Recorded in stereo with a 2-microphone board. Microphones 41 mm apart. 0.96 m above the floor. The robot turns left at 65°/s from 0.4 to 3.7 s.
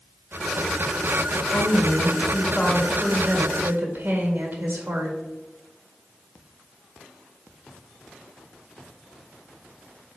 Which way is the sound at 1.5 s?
90° left.